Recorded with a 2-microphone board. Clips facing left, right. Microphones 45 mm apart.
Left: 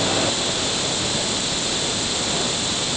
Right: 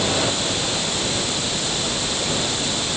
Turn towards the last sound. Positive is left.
No sound to turn to.